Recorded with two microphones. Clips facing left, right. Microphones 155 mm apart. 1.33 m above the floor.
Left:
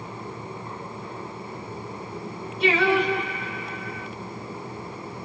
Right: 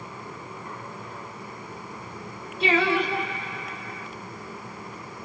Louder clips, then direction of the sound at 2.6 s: Left 2 dB; 30° right (ahead or behind).